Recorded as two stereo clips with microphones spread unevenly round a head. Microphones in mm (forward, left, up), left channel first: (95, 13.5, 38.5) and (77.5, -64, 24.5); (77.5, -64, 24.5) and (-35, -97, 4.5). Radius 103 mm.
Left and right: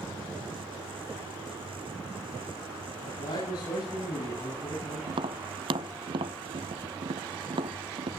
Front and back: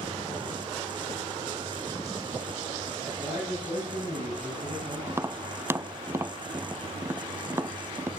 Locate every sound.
3.0 s a man speaking: 120° left, 8 m
5.1 s tapping: 90° right, 0.7 m